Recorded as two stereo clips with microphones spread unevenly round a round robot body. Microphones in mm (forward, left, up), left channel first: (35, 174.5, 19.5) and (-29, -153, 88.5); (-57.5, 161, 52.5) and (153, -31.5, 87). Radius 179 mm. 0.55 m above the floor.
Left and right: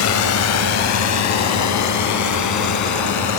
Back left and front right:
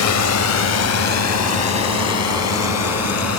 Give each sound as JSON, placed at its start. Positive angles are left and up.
{"t": 0.0, "sound": "a drone", "azimuth_deg": 120}